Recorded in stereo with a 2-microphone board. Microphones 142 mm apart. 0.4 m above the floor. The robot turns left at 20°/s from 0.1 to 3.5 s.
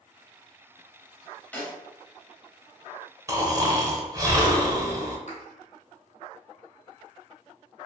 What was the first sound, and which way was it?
A snare drum, 10° left (ahead or behind).